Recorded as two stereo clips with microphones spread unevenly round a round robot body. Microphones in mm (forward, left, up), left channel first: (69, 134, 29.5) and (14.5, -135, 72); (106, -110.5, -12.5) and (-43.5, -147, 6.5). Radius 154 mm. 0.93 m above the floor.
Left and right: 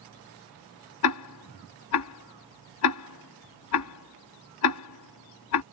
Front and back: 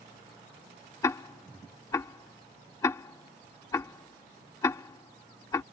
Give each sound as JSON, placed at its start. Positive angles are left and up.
{"t": 1.0, "sound": "ticking", "azimuth_deg": 85}